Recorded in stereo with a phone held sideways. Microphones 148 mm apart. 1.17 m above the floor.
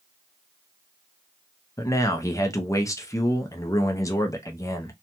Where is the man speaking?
20° left (ahead or behind), 0.5 m.